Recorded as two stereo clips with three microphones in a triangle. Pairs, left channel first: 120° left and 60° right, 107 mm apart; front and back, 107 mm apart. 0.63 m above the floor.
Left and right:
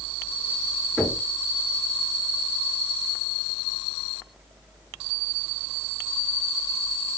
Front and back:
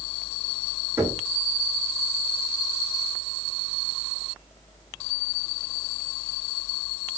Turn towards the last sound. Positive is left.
turn(degrees=170)